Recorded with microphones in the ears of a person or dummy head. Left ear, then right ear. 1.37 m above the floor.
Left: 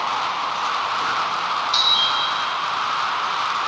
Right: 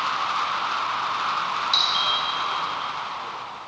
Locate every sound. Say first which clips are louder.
1.7 s a doorbell: left 3 dB; 40° right (ahead or behind), 1.0 m